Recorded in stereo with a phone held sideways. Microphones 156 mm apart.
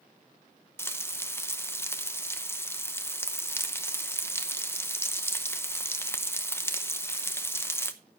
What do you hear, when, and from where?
0.8 s frying: 15° left (ahead or behind), 0.8 m